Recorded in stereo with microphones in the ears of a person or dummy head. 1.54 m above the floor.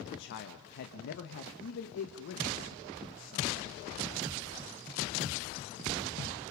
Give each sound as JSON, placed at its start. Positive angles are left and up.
{"t": 0.1, "sound": "a man speaking", "side_deg": 55, "distance_m": 1.6}